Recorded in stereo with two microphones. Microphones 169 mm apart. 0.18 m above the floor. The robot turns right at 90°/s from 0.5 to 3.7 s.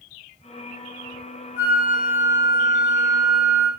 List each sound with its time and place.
1.6 s a flute: 65° left, 1.3 m; by 3.7 s 105° right, 1.3 m